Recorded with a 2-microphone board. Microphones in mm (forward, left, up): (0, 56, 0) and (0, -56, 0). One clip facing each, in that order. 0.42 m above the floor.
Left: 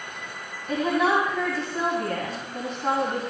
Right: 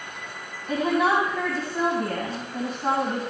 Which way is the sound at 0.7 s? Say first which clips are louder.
Even; centre (ahead or behind).